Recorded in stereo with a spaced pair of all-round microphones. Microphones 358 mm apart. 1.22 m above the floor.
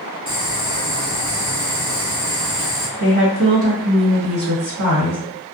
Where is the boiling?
55° right (ahead or behind), 0.8 m.